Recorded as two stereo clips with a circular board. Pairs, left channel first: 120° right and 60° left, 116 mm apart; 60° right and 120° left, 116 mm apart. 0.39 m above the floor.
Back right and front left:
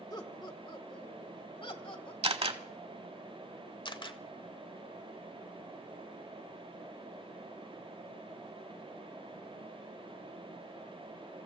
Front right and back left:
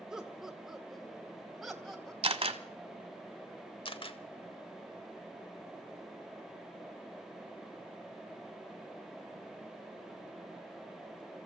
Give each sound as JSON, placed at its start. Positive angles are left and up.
{"t": 0.1, "sound": "laughter", "azimuth_deg": -155, "distance_m": 1.4}
{"t": 2.2, "sound": "a camera shutter", "azimuth_deg": 85, "distance_m": 1.1}
{"t": 3.9, "sound": "a camera shutter", "azimuth_deg": -85, "distance_m": 0.8}